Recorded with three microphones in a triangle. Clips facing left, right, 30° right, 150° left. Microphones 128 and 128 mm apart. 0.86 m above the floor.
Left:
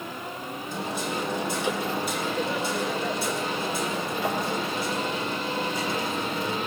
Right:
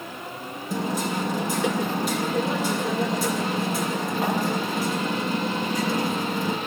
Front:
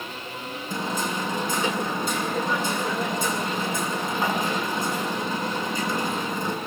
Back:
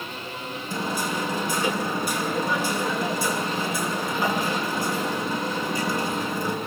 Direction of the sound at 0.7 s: 100° right.